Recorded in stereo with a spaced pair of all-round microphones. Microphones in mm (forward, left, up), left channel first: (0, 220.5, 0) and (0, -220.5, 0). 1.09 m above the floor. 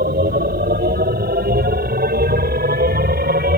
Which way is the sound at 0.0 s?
20° right (ahead or behind).